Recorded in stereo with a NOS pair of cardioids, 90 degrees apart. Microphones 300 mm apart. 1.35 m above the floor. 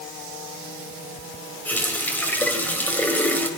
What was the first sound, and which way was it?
A running tap, 5° left.